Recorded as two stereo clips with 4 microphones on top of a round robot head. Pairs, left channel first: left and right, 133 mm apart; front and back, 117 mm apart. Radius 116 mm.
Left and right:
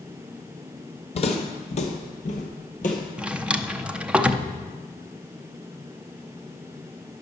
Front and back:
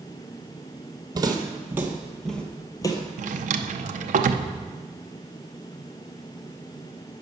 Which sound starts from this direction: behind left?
Footsteps, at 1.1 s.